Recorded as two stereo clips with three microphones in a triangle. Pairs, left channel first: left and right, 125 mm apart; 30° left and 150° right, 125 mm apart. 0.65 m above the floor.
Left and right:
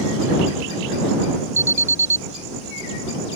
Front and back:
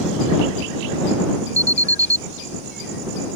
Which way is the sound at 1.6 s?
85° right.